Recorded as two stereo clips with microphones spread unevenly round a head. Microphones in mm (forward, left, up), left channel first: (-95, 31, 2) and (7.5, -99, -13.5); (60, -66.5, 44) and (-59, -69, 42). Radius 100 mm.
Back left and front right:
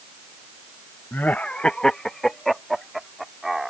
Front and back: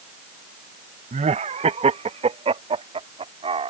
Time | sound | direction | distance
1.1 | laughter | 155° right | ?